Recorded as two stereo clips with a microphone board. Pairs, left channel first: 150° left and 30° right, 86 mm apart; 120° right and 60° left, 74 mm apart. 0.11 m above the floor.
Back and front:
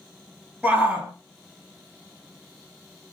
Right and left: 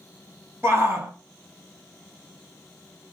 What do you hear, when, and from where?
0.6 s a shout: 35° left, 1.6 m